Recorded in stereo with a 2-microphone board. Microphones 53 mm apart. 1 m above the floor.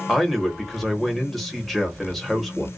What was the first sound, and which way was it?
A man speaking, 5° left (ahead or behind).